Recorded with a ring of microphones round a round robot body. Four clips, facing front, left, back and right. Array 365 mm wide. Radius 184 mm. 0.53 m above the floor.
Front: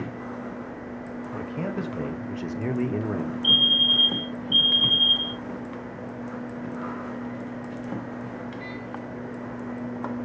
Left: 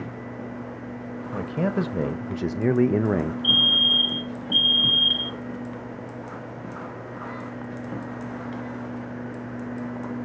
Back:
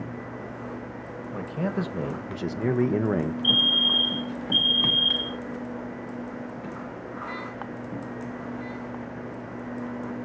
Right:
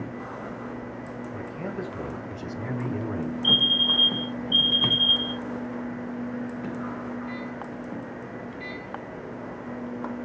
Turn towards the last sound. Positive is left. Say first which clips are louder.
# left 1 dB, even
turn(degrees=50)